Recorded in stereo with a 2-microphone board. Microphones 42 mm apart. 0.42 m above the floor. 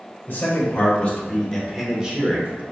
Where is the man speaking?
50° left (ahead or behind), 1.2 m; by 2.6 s 35° right (ahead or behind), 1.0 m.